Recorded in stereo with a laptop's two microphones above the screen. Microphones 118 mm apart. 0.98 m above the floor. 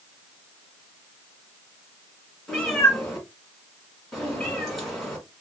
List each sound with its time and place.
2.5 s a cat meowing: centre (ahead or behind), 1.7 m